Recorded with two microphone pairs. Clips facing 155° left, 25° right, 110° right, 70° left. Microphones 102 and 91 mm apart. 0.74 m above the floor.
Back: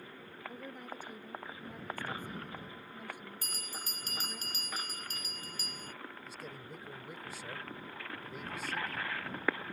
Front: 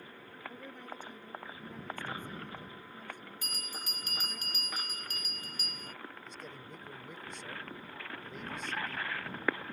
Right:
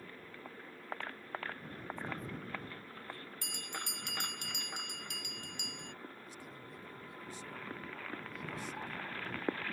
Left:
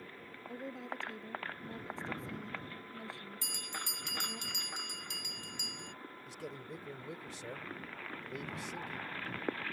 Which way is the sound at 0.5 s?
75° left.